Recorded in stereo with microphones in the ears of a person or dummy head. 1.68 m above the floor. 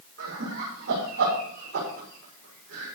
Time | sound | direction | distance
0.2 | laughter | 60° right (ahead or behind) | 6.5 m